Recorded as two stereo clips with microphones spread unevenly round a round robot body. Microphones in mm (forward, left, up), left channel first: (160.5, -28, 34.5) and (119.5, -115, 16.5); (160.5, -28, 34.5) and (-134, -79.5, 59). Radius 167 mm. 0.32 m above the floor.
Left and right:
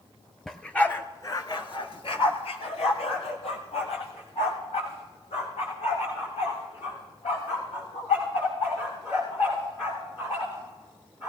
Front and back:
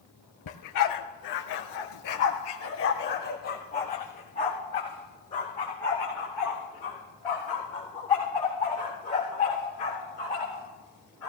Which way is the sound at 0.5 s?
20° right.